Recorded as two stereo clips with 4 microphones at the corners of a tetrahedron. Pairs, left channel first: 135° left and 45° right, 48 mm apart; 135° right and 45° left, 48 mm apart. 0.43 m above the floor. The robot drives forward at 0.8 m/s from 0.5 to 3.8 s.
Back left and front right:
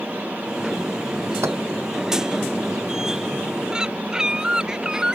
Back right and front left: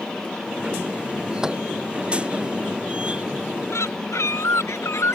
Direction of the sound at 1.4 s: 35° right.